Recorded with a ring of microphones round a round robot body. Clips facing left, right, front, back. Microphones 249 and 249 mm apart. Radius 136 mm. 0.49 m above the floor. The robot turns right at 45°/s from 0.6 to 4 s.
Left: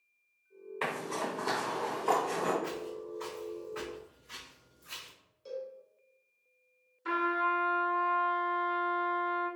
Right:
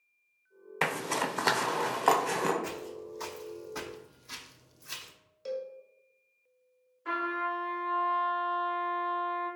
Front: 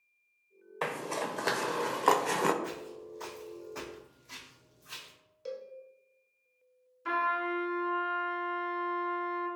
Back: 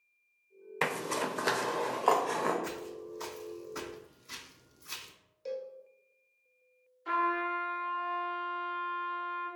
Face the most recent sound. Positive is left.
turn(degrees=30)